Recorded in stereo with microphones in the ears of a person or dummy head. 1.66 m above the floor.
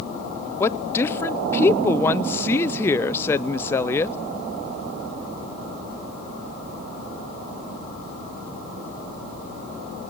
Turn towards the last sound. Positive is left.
turn(degrees=15)  # may be behind; listen again after turning